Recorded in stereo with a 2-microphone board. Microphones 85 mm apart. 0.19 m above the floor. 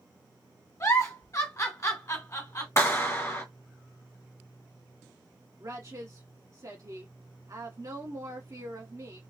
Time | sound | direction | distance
0.8 | a giggle | 40° left (ahead or behind) | 1.6 m
2.8 | a clap | 35° left (ahead or behind) | 1.6 m
5.6 | a woman speaking | 45° right (ahead or behind) | 1.9 m